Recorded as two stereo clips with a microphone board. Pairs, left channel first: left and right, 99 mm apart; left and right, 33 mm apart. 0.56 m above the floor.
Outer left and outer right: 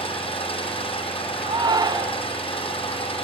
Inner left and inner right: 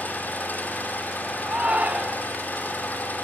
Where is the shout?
45° right (ahead or behind), 1.7 m.